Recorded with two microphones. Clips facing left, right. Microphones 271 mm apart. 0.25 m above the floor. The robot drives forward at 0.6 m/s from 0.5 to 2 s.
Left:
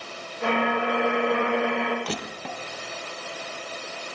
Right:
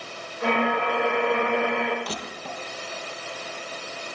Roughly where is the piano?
No piano in this recording.